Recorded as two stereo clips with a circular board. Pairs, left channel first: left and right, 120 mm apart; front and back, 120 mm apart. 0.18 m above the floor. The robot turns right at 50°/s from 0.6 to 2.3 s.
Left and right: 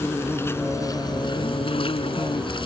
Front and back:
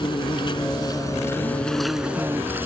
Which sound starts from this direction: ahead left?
An insect, at 0.0 s.